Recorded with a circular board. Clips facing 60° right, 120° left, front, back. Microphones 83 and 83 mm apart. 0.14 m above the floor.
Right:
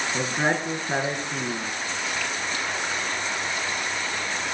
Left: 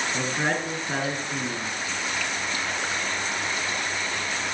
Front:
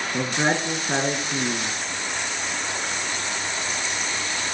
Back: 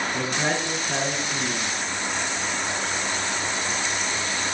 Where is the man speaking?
Straight ahead, 1.7 m.